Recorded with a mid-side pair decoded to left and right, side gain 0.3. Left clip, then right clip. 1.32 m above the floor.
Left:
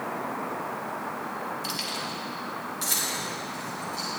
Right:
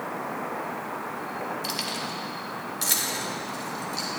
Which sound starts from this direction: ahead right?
Keys jangling, at 1.6 s.